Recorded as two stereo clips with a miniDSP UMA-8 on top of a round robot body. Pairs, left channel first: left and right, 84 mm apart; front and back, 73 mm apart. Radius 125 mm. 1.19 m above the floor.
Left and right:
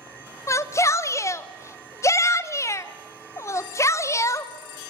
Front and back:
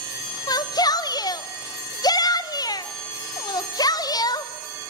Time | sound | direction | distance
0.5 | a shout | 35° left | 1.1 m